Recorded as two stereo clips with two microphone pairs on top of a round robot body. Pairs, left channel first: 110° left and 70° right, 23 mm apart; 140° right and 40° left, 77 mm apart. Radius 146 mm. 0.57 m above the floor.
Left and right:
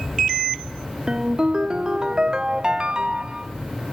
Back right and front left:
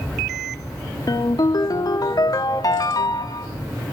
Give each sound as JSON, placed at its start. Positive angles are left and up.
{"t": 1.1, "sound": "a ringtone", "azimuth_deg": -120, "distance_m": 1.3}